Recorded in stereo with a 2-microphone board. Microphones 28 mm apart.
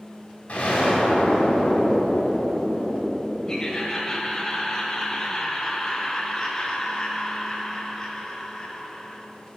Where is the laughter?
20° left (ahead or behind), 1.1 m.